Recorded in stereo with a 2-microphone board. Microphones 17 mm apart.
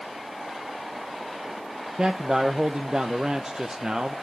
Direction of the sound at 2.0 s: 40° right (ahead or behind).